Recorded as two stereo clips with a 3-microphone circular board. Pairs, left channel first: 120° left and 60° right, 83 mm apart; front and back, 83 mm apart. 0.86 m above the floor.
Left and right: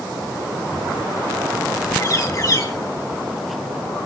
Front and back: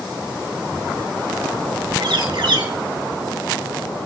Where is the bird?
165° left, 2 m.